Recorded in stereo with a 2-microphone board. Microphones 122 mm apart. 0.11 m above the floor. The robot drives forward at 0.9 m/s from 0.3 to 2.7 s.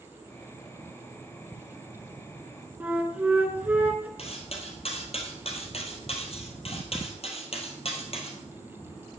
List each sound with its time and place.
2.8 s a flute: 15° right (ahead or behind), 1.4 m
4.2 s cutlery clinking: 55° left (ahead or behind), 1.7 m